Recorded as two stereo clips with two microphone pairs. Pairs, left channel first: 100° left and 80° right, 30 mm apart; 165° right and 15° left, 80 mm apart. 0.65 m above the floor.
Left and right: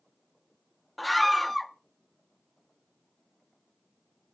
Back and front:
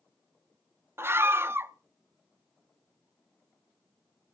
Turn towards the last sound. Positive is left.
turn(degrees=20)